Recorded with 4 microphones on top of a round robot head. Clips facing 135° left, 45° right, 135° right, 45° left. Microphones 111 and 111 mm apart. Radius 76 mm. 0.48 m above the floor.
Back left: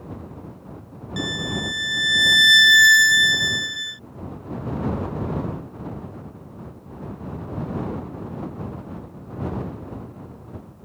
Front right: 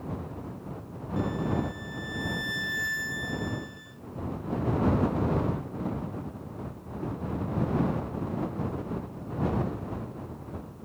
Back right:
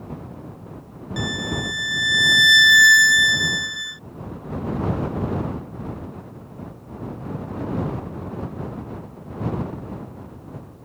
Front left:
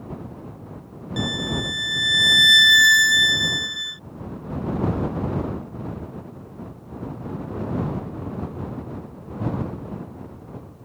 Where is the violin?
125° left.